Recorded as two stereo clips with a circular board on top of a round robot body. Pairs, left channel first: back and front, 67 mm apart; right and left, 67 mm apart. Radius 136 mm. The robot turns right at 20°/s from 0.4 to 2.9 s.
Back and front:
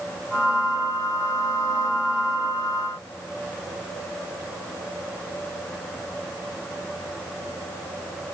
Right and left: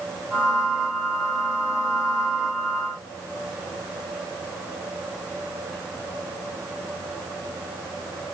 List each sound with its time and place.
Only background noise.